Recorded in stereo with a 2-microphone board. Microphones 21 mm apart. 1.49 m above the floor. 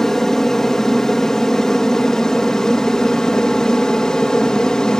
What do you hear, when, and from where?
0.0 s an aircraft: 20° left (ahead or behind); by 5.0 s 30° left (ahead or behind)